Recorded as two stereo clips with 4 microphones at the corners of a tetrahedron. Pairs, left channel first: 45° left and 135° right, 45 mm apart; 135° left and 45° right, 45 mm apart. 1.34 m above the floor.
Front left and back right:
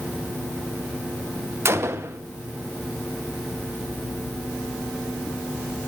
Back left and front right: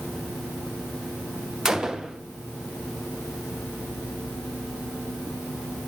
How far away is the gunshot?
About 0.6 m.